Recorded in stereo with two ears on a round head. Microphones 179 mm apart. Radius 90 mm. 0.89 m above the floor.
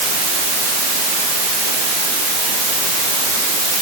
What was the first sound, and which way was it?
Only background noise.